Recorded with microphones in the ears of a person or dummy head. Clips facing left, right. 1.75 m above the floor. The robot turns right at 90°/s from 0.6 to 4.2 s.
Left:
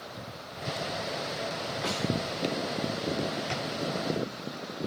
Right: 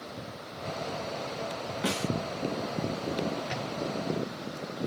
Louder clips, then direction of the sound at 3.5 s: Left 1 dB; 50° left (ahead or behind).